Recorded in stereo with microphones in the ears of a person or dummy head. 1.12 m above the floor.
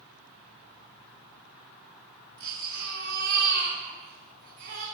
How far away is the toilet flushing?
No toilet flushing in this recording.